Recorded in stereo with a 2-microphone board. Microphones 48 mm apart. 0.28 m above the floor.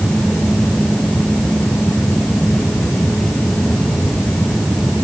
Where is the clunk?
I don't hear a clunk.